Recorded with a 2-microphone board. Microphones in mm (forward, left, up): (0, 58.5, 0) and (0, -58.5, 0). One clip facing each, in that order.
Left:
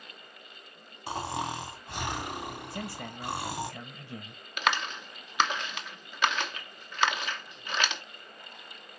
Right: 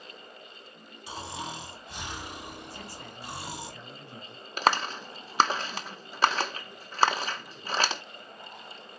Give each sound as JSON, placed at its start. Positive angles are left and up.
{"t": 1.1, "sound": "snoring", "side_deg": 55, "distance_m": 2.5}
{"t": 2.7, "sound": "a man speaking", "side_deg": 55, "distance_m": 1.9}
{"t": 4.6, "sound": "a clap", "side_deg": -35, "distance_m": 0.9}